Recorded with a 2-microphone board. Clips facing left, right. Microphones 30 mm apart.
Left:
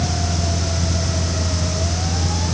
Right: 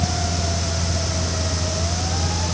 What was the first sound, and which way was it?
Only background noise.